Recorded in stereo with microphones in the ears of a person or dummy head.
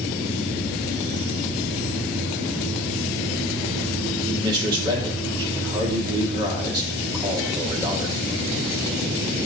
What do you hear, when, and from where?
4.3 s a man speaking: 25° right (ahead or behind), 1.8 m